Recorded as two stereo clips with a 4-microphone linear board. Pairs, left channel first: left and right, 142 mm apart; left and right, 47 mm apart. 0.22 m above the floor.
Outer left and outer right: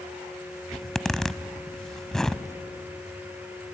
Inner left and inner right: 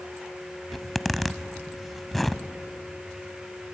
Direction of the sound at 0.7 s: 5° left (ahead or behind).